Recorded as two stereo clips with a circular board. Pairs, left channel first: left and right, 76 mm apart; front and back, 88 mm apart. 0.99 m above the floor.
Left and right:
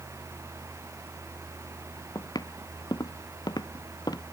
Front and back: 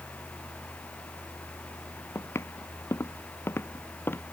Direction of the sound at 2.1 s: 60° left.